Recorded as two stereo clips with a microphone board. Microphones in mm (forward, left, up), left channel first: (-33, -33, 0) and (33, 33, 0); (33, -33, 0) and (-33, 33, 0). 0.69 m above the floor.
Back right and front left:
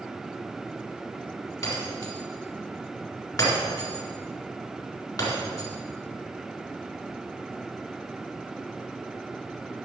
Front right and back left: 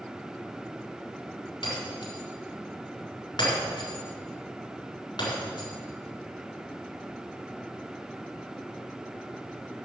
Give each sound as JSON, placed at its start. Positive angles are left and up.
{"t": 1.6, "sound": "breaking glass", "azimuth_deg": -85, "distance_m": 4.0}